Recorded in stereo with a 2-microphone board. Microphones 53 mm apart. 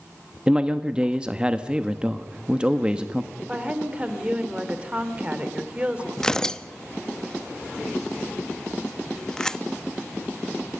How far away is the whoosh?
I don't hear a whoosh.